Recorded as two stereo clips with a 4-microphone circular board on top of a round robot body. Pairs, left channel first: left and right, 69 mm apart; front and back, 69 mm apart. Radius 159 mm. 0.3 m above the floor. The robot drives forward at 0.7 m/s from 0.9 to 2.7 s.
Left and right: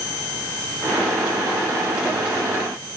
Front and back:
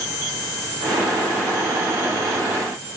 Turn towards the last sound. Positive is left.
No sound to turn to.